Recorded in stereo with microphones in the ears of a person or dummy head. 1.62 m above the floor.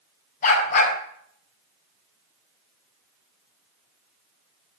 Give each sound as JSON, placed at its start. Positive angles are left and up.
{"t": 0.4, "sound": "a dog barking", "side_deg": 45, "distance_m": 5.5}